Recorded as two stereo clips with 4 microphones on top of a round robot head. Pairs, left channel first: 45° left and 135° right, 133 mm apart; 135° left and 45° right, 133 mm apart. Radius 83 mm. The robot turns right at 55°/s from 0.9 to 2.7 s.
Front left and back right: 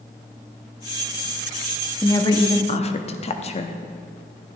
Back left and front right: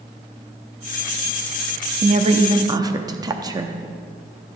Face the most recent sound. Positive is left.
turn(degrees=10)